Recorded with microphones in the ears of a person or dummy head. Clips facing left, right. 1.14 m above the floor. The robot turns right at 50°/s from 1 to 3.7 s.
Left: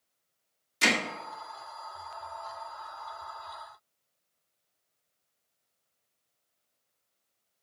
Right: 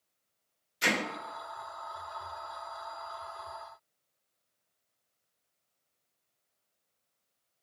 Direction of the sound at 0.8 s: 70° left (ahead or behind).